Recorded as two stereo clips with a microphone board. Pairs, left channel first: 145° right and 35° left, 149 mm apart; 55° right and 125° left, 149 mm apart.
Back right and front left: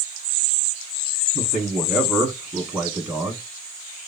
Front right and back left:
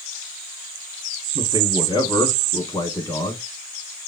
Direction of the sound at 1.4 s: 40° right.